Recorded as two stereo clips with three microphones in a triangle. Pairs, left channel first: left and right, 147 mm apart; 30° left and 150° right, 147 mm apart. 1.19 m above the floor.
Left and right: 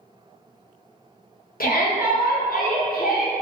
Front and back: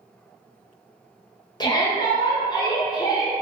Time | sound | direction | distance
1.6 | a shout | 90° left | 0.8 m